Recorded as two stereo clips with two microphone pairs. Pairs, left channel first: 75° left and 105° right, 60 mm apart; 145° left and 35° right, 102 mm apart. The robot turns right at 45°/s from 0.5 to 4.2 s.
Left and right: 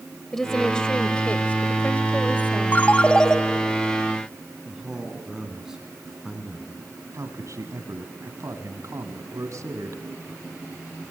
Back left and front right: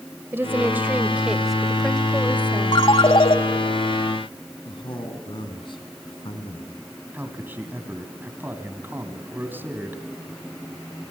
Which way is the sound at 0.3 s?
Straight ahead.